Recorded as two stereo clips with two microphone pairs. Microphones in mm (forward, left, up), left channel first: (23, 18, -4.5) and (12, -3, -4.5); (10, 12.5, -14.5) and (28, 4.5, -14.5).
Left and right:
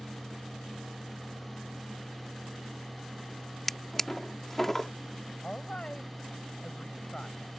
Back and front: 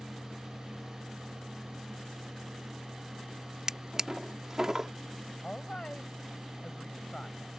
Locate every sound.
3.7 s a drawer: 5° right
5.4 s a woman speaking: 110° left